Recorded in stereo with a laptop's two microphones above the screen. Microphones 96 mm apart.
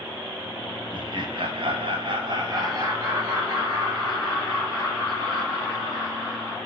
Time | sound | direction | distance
0.9 | laughter | 50° right (ahead or behind) | 0.8 m